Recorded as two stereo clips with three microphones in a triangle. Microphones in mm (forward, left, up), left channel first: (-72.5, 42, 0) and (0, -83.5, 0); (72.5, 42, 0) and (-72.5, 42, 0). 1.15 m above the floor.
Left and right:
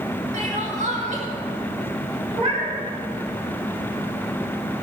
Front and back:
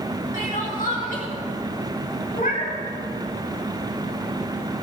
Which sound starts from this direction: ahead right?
Crying, at 0.3 s.